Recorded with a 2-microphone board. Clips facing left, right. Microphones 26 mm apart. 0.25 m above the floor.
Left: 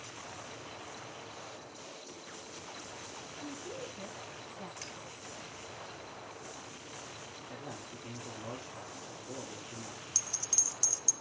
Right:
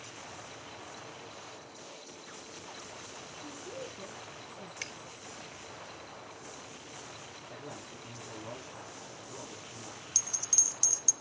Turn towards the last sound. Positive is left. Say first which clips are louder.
# right 3 dB
turn(degrees=-25)  # may be behind; listen again after turning